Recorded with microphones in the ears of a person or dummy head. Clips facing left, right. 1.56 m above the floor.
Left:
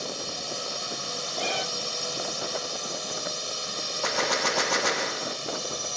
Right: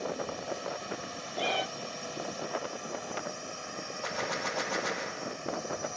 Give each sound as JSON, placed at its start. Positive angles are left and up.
{"t": 0.0, "sound": "a drone", "side_deg": 60}
{"t": 1.4, "sound": "a cat meowing", "side_deg": 0}
{"t": 4.0, "sound": "a gunshot", "side_deg": 65}